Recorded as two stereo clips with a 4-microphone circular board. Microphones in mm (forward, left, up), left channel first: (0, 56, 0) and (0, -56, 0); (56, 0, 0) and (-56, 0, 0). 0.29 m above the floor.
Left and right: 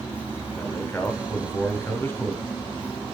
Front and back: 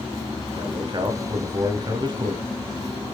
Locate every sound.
0.6 s a man speaking: 155° left, 1.5 m